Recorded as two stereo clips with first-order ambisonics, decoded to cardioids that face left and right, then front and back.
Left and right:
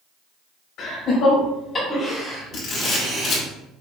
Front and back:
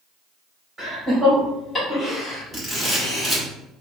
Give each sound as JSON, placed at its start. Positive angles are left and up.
{"t": 0.8, "sound": "laughter", "azimuth_deg": 95, "distance_m": 1.8}
{"t": 2.5, "sound": "a camera shutter", "azimuth_deg": 95, "distance_m": 1.6}